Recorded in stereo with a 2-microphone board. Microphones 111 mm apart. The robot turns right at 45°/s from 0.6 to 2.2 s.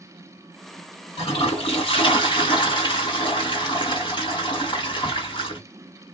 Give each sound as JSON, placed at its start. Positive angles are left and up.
{"t": 1.2, "sound": "a toilet flushing", "azimuth_deg": 80, "distance_m": 1.7}